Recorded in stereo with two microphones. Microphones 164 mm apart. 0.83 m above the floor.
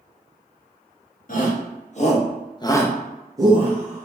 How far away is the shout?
About 1.2 m.